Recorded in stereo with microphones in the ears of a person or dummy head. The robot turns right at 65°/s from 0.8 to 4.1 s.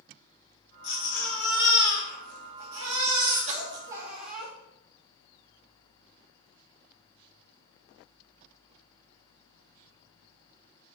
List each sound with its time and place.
0.8 s a baby crying: 135° left, 2 m; by 4.5 s 15° right, 2 m